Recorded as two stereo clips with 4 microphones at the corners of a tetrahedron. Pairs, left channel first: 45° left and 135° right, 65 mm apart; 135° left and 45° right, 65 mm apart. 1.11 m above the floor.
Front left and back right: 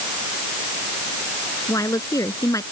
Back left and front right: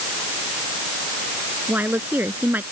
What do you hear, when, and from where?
1.7 s a woman speaking: 15° left